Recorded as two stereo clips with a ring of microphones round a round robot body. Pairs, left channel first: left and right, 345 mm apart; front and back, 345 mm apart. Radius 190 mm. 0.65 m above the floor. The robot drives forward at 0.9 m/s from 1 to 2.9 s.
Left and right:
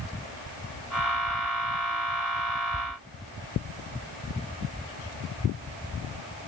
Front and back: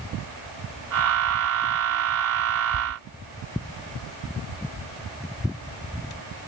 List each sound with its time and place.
Only background noise.